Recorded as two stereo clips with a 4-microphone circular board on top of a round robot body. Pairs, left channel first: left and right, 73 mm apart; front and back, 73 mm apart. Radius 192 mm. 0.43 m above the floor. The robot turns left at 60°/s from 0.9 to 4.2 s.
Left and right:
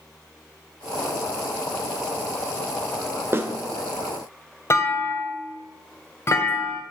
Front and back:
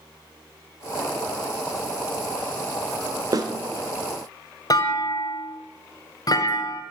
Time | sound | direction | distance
3.3 | a snare drum | 145° right | 1.5 m
4.7 | a clunk | 35° left | 1.7 m